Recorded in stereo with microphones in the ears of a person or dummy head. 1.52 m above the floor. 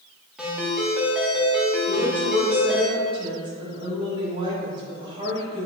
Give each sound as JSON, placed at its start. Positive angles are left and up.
{"t": 0.4, "sound": "a ringtone", "side_deg": 0, "distance_m": 2.0}
{"t": 1.9, "sound": "a woman speaking", "side_deg": -25, "distance_m": 2.0}